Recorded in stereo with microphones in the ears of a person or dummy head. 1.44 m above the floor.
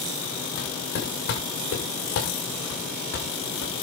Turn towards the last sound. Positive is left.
turn(degrees=75)  # may be behind; listen again after turning